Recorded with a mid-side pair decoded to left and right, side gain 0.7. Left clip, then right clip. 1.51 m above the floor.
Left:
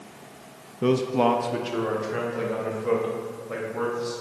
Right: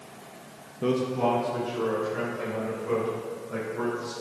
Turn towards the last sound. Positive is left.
turn(degrees=75)